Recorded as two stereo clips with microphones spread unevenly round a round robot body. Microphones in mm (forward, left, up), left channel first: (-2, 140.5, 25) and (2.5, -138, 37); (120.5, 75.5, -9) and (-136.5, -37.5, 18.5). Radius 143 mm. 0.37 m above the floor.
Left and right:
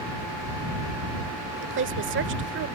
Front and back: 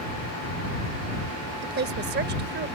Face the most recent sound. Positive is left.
turn(degrees=-110)